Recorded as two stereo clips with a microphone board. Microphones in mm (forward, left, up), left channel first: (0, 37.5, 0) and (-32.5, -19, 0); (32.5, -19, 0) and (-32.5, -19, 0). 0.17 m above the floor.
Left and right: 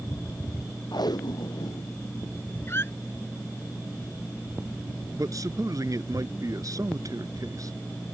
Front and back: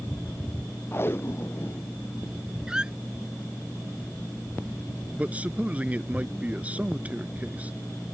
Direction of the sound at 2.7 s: 105° left.